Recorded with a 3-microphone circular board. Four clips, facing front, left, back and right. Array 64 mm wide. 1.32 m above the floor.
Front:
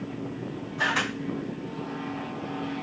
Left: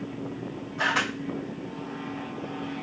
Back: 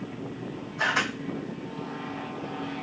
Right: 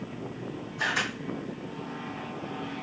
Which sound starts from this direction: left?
A camera shutter, at 0.8 s.